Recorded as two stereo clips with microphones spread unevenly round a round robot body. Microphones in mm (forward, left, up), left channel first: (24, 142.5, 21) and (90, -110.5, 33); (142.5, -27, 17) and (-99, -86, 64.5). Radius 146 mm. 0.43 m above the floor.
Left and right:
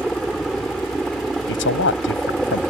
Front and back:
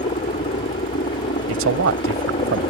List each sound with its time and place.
0.0 s a helicopter: 20° left
1.5 s a man speaking: 150° left